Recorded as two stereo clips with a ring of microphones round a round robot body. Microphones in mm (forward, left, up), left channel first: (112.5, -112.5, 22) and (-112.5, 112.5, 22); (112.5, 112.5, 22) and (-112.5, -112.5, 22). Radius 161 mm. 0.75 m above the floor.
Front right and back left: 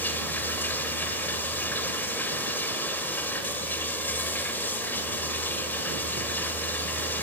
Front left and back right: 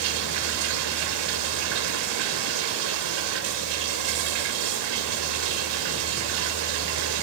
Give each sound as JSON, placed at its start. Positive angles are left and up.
{"t": 0.0, "sound": "running water", "azimuth_deg": -130, "distance_m": 1.8}